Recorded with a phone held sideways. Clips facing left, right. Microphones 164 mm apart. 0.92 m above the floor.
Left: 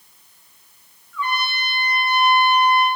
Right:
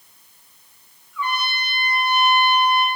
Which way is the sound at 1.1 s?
15° right (ahead or behind).